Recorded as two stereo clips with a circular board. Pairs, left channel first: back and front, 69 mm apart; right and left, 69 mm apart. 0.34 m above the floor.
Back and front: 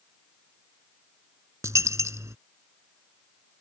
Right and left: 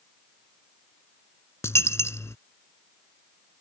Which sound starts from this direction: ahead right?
A dropped coin, at 1.6 s.